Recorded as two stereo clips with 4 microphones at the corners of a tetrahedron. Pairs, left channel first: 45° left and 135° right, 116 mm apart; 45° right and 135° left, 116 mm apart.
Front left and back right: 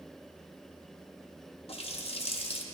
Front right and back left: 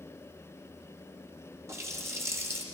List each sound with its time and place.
1.7 s a running tap: 70° left, 0.7 m